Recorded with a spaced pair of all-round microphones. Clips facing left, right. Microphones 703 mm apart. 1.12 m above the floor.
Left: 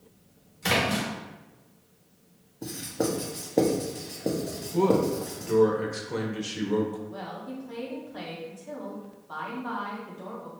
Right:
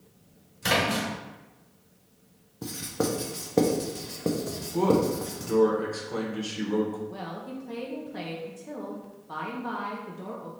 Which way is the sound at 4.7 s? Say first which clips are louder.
Even; 50° left (ahead or behind).